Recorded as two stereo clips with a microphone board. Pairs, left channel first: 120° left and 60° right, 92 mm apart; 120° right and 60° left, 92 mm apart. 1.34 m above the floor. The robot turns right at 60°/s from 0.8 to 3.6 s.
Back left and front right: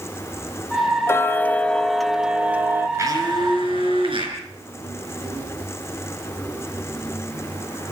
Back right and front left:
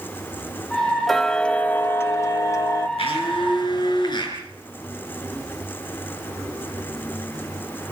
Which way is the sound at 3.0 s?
120° right.